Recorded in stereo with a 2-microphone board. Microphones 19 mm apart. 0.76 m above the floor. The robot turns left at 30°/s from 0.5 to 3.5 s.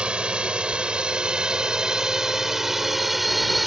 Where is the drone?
70° right (ahead or behind); by 3.7 s 5° right (ahead or behind).